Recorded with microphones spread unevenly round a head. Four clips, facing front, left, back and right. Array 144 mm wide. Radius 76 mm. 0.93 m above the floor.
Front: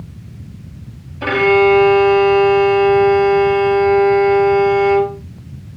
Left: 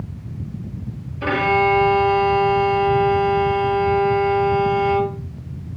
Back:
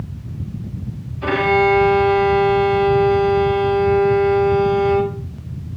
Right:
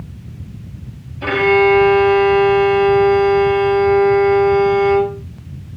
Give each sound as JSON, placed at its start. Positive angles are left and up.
{"t": 1.2, "sound": "a violin", "azimuth_deg": 10, "distance_m": 1.1}